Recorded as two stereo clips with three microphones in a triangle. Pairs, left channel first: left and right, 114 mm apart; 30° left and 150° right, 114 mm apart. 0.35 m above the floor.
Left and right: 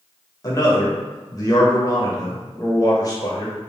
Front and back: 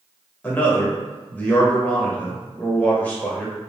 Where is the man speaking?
95° left, 1.0 m.